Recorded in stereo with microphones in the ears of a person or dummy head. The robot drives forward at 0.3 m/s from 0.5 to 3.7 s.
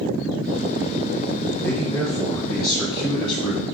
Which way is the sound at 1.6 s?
20° left (ahead or behind).